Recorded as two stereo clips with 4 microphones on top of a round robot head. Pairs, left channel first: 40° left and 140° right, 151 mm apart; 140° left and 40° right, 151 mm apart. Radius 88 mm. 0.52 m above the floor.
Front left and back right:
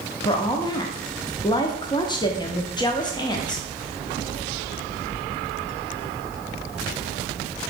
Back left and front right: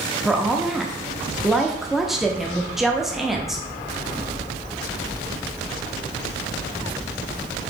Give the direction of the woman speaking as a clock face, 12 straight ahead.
10 o'clock.